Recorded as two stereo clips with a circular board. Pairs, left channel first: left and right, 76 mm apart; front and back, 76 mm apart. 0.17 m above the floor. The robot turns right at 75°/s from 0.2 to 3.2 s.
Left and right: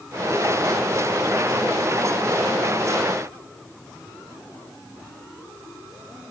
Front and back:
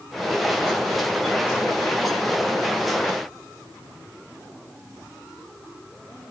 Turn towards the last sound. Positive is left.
No sound to turn to.